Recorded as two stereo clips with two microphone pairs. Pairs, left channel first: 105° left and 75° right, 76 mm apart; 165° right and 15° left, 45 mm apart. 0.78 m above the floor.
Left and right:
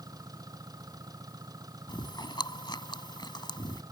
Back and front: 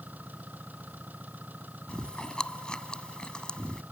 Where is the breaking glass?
No breaking glass in this recording.